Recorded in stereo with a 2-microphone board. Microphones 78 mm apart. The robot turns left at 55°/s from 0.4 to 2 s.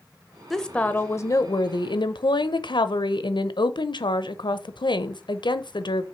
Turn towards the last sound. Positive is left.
turn(degrees=95)